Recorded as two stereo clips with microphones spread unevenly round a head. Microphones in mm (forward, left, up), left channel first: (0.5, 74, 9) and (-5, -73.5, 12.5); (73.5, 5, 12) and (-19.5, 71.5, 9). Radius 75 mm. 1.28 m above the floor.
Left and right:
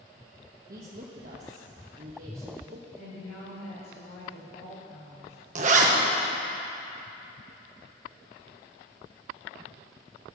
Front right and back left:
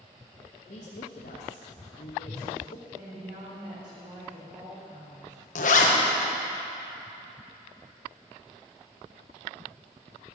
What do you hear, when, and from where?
0.7 s a woman speaking: 55° right, 1.3 m
3.0 s a woman speaking: 95° left, 4 m
5.5 s a zipper: 50° right, 1.2 m